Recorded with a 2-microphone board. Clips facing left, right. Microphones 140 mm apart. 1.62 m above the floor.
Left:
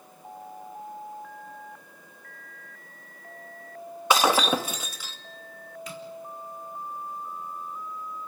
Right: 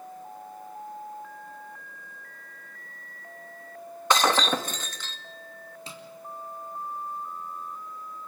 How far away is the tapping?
About 4.5 m.